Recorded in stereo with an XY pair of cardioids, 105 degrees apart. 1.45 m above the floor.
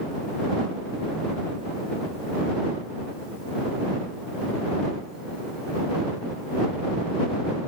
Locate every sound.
Only background noise.